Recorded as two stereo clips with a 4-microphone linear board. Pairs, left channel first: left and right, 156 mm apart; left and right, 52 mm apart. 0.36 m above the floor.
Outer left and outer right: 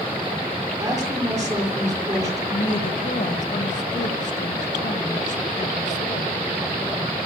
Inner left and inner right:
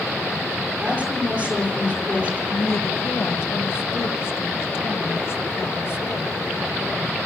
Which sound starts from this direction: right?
A woman speaking, at 0.8 s.